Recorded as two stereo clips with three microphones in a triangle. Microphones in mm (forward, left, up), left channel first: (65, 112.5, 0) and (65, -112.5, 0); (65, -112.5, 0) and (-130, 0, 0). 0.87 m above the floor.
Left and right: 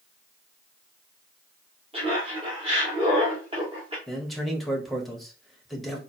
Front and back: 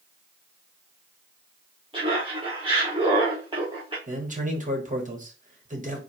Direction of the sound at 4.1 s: Straight behind.